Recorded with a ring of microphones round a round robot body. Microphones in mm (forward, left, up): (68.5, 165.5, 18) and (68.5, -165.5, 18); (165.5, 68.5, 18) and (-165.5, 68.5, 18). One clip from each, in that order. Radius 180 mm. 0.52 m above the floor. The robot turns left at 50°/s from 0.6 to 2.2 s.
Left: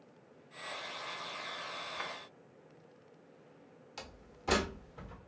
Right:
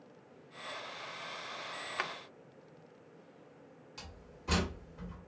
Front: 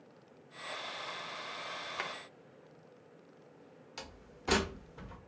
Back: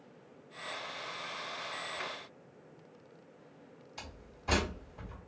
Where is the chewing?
I don't hear chewing.